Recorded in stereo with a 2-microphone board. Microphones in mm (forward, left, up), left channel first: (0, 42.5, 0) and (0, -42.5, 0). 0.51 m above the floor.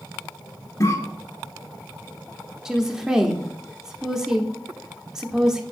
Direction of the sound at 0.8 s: 35° left (ahead or behind).